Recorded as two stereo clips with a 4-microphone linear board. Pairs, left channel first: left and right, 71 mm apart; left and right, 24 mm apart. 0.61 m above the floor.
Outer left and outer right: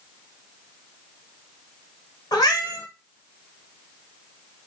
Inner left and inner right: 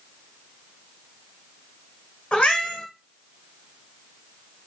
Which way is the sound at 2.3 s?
80° left.